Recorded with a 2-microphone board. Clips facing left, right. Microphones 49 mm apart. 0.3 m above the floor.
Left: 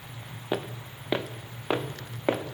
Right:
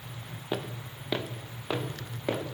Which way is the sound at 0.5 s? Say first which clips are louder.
Left 3 dB; 20° left (ahead or behind).